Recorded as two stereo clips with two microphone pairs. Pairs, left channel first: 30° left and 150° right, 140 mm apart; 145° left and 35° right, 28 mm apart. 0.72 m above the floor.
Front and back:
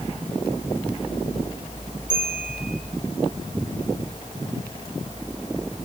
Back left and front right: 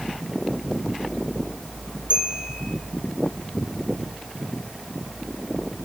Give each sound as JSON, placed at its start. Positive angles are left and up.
{"t": 2.1, "sound": "a bell", "azimuth_deg": 25, "distance_m": 9.5}